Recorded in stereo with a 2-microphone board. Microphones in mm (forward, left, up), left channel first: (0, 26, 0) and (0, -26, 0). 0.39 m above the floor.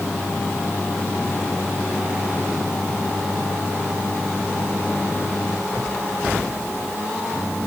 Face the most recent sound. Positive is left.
No sound to turn to.